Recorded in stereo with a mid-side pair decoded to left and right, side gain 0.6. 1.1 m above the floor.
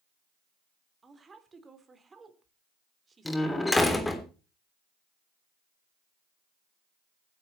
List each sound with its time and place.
1.0 s a woman speaking: 25° right, 3.5 m
3.2 s a door slam: 10° left, 3 m